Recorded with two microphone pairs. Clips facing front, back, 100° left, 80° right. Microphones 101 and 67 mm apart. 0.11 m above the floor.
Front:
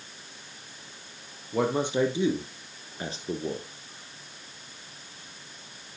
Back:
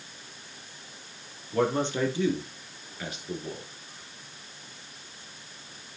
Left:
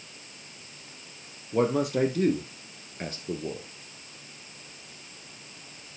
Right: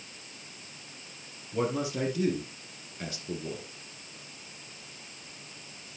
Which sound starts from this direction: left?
A man speaking, at 1.5 s.